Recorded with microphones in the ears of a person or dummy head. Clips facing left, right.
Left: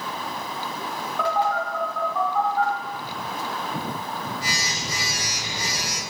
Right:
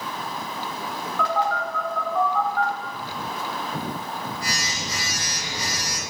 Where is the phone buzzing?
25° left (ahead or behind), 1.1 m.